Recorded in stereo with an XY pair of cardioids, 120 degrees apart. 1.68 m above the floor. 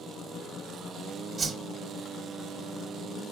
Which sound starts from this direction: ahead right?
A whoosh, at 1.4 s.